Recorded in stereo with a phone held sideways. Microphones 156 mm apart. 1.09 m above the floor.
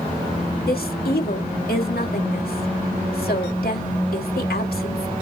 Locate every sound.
0.7 s a woman speaking: 80° left, 2.5 m